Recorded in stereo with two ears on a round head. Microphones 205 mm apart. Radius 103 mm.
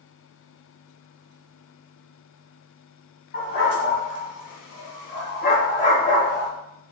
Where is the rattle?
I don't hear a rattle.